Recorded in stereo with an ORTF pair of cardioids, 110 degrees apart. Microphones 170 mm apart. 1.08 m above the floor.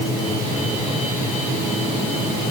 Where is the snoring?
No snoring in this recording.